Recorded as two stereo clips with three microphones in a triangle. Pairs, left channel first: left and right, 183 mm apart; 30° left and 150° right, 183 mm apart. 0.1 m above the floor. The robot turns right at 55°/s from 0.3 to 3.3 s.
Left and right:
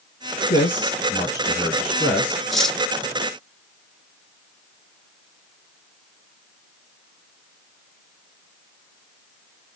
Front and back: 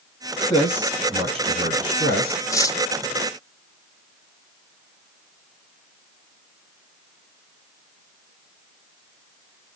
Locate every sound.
0.5 s a man speaking: 110° left, 2.5 m; by 2.4 s 145° right, 2.5 m
2.5 s cutlery clinking: straight ahead, 0.7 m; by 2.8 s 15° left, 0.7 m